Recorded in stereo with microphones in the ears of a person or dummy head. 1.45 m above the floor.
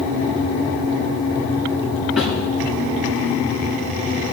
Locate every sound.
2.2 s a snare drum: centre (ahead or behind), 8.5 m